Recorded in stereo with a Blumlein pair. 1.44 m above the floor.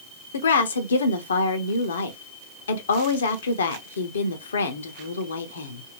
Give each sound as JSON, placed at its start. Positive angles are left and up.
{"t": 0.3, "sound": "a woman speaking", "azimuth_deg": 70, "distance_m": 0.8}